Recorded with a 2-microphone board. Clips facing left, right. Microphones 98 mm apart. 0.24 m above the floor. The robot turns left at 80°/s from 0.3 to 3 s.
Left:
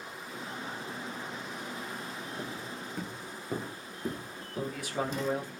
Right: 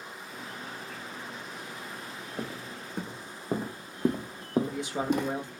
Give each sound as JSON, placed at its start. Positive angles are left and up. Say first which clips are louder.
{"t": 2.4, "sound": "footsteps", "louder": "right 1 dB", "side_deg": -65, "distance_m": 1.2}
{"t": 4.5, "sound": "a man speaking", "louder": "right 5 dB", "side_deg": -20, "distance_m": 1.0}